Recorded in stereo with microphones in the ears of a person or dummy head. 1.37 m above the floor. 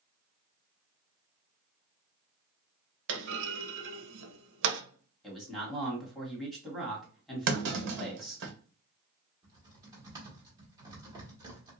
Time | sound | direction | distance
3.1 | a clunk | 75° right (ahead or behind) | 0.9 m
5.2 | a man speaking | 5° left (ahead or behind) | 1.8 m
7.5 | a clunk | 60° right (ahead or behind) | 1.3 m
9.4 | typing on a keyboard | 15° right (ahead or behind) | 1.6 m